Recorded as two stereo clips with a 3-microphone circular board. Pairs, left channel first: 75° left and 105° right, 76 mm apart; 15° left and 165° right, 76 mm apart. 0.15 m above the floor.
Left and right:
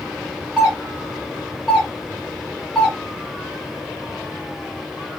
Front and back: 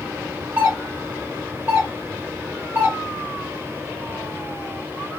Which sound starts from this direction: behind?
A doorbell, at 0.6 s.